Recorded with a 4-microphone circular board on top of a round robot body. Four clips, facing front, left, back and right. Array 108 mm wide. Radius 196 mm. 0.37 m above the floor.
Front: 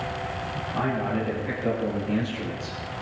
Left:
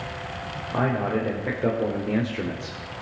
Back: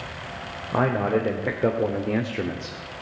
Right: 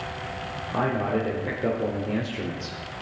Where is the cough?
I don't hear a cough.